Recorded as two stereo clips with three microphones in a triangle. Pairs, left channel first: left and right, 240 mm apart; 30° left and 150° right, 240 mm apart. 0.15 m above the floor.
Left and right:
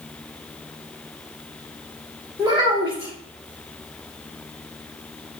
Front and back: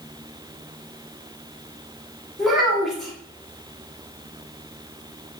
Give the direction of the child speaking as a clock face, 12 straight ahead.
2 o'clock.